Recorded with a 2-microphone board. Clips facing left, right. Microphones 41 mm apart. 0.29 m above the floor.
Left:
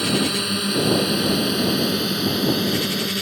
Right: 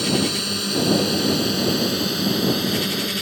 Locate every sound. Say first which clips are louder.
0.0 s a drone: even; 20° left (ahead or behind); by 3.2 s centre (ahead or behind)